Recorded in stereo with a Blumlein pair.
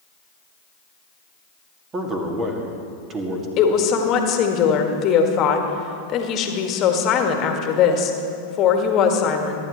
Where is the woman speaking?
30° left, 1.7 m.